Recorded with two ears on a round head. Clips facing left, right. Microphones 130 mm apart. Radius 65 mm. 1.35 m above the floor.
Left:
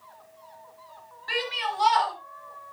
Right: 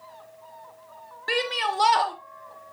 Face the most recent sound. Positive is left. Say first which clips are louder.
# right 4 dB
turn(degrees=-60)  # may be behind; listen again after turning